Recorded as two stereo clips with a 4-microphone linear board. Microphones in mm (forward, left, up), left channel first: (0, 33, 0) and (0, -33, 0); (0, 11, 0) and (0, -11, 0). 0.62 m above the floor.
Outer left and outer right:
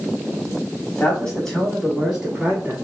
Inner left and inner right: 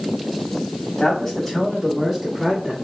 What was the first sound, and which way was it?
A man speaking, 20° left (ahead or behind).